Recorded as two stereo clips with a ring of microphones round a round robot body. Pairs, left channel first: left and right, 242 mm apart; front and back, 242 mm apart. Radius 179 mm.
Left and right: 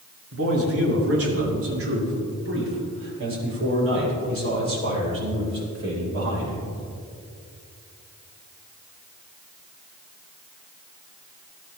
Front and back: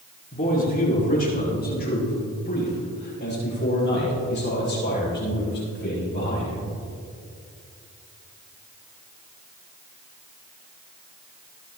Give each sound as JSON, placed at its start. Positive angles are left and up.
{"t": 0.3, "sound": "a man speaking", "azimuth_deg": -70, "distance_m": 4.5}